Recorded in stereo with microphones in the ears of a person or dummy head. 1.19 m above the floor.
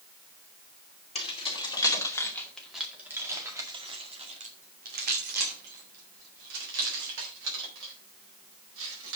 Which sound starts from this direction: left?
Keys jangling, at 1.1 s.